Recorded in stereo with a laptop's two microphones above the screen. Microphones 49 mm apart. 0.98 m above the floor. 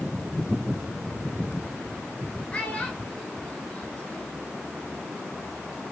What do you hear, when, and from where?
2.5 s a child speaking: 25° left (ahead or behind), 2.0 m